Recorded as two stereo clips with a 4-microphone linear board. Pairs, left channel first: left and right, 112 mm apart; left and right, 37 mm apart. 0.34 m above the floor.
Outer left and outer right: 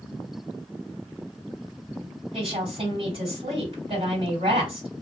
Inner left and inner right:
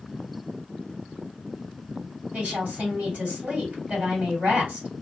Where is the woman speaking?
55° right (ahead or behind), 2.5 m.